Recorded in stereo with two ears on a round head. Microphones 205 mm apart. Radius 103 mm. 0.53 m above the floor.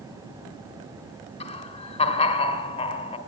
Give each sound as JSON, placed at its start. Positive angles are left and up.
{"t": 1.4, "sound": "laughter", "side_deg": 25, "distance_m": 1.8}